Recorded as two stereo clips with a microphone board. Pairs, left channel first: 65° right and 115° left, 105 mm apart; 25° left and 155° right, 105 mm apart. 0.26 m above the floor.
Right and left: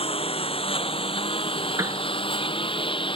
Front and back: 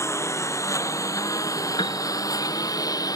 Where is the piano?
60° left.